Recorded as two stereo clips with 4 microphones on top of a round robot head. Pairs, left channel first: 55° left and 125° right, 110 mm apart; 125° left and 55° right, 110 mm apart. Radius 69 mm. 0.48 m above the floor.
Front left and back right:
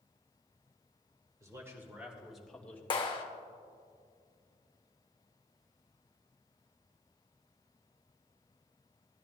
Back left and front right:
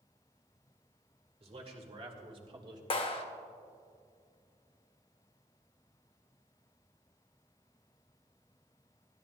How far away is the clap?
About 1.3 m.